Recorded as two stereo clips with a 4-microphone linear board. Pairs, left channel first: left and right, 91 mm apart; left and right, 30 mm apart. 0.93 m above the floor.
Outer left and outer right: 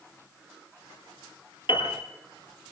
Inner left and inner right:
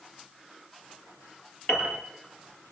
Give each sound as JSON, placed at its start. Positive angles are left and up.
{"t": 1.7, "sound": "a piano", "side_deg": 60, "distance_m": 6.5}